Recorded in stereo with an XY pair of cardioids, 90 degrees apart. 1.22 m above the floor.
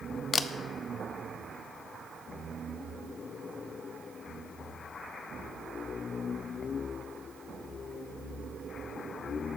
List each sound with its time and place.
0.3 s a camera shutter: 40° left, 0.8 m